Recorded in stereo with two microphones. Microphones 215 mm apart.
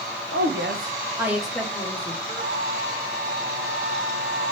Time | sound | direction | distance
0.3 | a woman speaking | 70° right (ahead or behind) | 0.8 m
2.2 | a flute | 45° right (ahead or behind) | 1.4 m